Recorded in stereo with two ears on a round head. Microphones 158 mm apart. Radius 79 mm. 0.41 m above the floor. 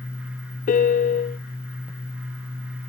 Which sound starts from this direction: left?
A piano, at 0.7 s.